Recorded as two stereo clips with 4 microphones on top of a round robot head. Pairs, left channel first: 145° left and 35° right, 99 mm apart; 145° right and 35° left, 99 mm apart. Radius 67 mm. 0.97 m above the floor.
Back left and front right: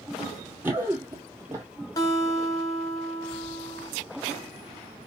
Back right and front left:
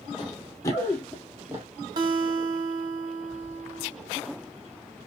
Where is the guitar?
85° left, 1.0 m.